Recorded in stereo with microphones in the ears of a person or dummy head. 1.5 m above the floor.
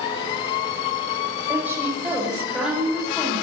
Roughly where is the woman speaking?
Centre.